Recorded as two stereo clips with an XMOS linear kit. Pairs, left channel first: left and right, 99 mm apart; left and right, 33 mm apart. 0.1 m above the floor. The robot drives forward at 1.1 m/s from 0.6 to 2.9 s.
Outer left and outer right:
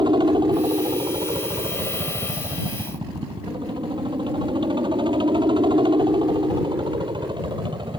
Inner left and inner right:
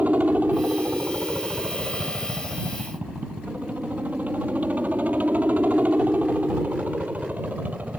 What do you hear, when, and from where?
0.0 s a helicopter: 50° right (ahead or behind); by 8.0 s 55° right (ahead or behind)